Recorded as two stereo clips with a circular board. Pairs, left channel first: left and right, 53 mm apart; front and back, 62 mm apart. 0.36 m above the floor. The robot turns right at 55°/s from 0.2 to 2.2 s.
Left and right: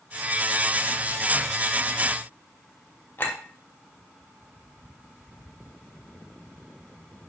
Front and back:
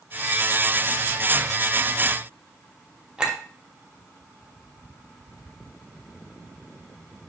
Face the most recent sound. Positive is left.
turn(degrees=110)